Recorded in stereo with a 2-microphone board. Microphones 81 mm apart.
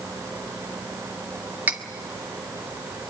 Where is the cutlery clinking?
20° right (ahead or behind), 1.5 m.